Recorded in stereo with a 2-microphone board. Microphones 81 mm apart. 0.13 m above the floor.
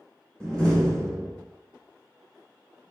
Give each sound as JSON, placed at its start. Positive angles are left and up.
{"t": 0.4, "sound": "a door slam", "side_deg": 10, "distance_m": 1.2}